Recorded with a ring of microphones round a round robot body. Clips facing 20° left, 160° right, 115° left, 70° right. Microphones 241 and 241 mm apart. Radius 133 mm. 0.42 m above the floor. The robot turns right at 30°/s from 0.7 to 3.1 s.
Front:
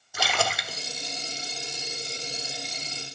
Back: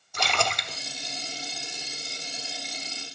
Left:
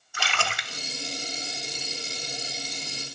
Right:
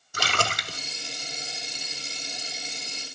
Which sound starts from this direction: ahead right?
A splash, at 0.1 s.